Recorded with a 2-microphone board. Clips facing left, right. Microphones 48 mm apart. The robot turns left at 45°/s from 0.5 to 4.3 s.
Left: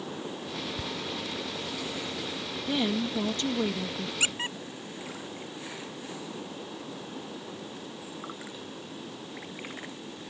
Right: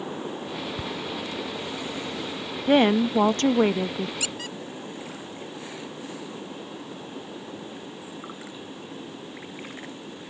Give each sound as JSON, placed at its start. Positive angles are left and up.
{"t": 0.8, "sound": "ticking", "side_deg": -30}
{"t": 2.7, "sound": "a woman speaking", "azimuth_deg": -70}
{"t": 4.2, "sound": "a squeak", "side_deg": 35}